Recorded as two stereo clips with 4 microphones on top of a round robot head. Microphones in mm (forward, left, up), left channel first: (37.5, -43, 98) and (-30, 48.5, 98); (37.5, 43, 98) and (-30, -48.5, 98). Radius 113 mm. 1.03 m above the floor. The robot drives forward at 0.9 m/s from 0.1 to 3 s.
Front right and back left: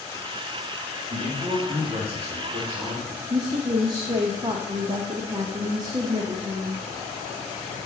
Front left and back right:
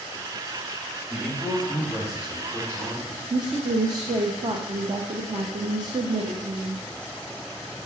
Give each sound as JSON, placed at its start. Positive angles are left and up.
{"t": 1.1, "sound": "a man speaking", "azimuth_deg": 155, "distance_m": 2.5}
{"t": 3.3, "sound": "a woman speaking", "azimuth_deg": 180, "distance_m": 1.0}